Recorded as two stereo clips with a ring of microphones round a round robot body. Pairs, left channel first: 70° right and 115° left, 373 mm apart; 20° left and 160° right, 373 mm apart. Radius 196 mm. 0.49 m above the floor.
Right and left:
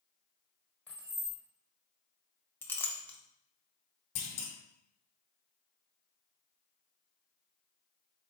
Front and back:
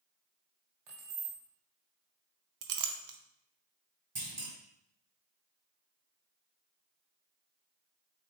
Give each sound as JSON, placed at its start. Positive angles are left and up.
{"t": 0.9, "sound": "keys jangling", "azimuth_deg": -155, "distance_m": 1.5}
{"t": 2.6, "sound": "a clink", "azimuth_deg": -150, "distance_m": 0.7}
{"t": 4.2, "sound": "a clunk", "azimuth_deg": -90, "distance_m": 1.2}